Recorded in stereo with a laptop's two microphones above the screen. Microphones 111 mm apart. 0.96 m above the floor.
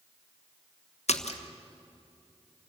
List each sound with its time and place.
1.1 s a splash: 75° left (ahead or behind), 1.3 m